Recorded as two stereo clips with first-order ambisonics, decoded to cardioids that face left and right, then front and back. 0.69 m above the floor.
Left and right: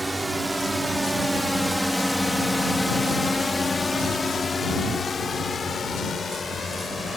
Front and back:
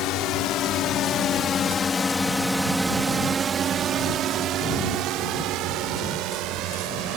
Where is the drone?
10° right; by 7.2 s 165° left.